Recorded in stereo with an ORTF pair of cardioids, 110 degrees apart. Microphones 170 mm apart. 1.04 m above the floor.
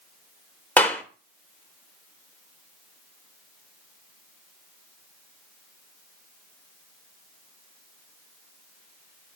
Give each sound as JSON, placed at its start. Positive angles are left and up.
{"t": 0.8, "sound": "a clap", "azimuth_deg": 10, "distance_m": 3.0}